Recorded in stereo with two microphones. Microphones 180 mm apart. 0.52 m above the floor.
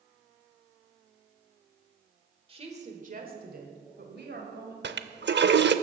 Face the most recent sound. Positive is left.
turn(degrees=-75)  # may be behind; listen again after turning